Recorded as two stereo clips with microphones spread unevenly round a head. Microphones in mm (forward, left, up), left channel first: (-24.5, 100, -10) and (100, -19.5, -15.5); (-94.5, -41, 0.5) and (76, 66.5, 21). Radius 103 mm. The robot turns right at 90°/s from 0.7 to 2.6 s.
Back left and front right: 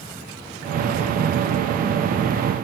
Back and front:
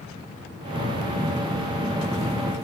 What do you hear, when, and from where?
Only background noise.